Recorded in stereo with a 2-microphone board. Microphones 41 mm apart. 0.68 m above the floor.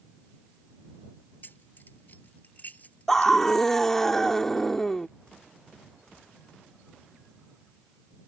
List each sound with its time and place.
1.4 s keys jangling: 55° left (ahead or behind); by 3.6 s 40° left (ahead or behind)
3.1 s a scream: 10° left (ahead or behind)